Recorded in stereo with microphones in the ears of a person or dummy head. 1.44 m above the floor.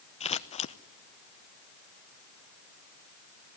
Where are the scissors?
35° left (ahead or behind), 0.7 m.